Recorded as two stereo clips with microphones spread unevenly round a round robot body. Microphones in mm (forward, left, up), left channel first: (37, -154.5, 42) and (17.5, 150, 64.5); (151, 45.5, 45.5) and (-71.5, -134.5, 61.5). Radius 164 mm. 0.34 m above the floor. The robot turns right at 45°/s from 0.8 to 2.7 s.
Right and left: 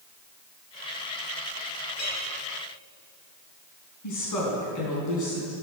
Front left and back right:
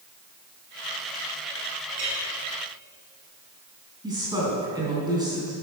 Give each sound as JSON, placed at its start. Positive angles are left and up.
{"t": 1.9, "sound": "a clink", "azimuth_deg": -140, "distance_m": 5.0}
{"t": 4.0, "sound": "a woman speaking", "azimuth_deg": -65, "distance_m": 3.5}